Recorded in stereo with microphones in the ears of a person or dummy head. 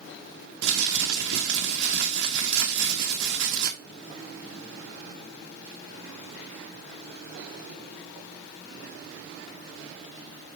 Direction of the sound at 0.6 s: 60° right (ahead or behind).